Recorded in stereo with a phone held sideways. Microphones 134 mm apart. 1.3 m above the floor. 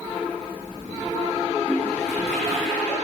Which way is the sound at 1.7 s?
15° left (ahead or behind).